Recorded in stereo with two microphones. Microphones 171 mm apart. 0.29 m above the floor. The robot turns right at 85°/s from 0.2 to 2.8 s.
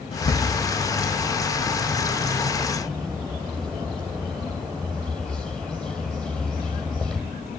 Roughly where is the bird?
Behind left.